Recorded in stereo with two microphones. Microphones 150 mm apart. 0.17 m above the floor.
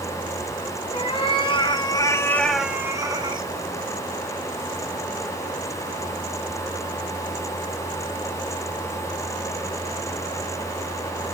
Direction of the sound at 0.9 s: 40° left (ahead or behind).